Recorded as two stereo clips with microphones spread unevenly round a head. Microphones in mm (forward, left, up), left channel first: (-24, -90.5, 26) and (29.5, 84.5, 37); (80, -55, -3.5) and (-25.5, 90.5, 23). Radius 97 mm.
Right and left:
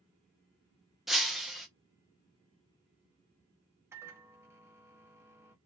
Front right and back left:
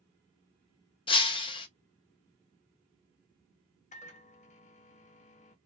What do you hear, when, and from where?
1.1 s breaking glass: 10° right, 0.5 m
3.9 s a microwave: straight ahead, 0.6 m